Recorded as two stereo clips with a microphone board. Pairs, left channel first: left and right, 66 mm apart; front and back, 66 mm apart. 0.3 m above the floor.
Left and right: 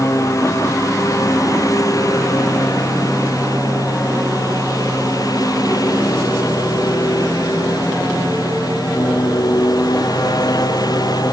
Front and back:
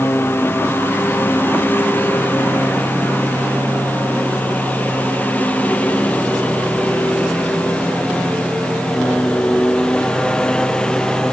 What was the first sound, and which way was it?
A lawn mower, 55° left.